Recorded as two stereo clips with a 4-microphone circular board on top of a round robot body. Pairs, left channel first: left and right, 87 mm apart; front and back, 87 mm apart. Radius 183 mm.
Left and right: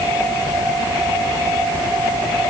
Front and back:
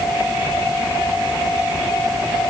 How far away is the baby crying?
I don't hear a baby crying.